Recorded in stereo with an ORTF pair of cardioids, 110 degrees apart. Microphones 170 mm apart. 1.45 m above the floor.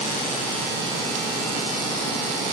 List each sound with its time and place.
Only background noise.